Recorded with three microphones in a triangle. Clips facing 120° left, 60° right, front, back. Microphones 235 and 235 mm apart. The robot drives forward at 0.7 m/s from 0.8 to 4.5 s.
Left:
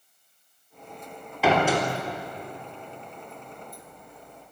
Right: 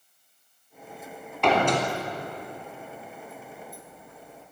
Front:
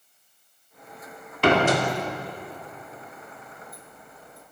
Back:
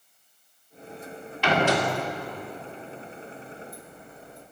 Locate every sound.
1.4 s a door slam: 35° left, 3.5 m; by 1.8 s 40° left, 3 m